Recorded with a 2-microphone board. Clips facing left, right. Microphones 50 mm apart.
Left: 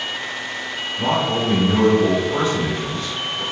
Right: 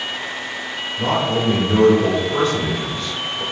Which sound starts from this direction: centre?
A man speaking, at 1.0 s.